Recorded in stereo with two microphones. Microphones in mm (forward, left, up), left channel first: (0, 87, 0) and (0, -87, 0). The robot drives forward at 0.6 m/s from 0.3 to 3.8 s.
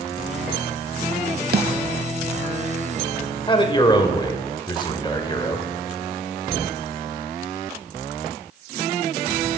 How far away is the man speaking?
About 0.9 m.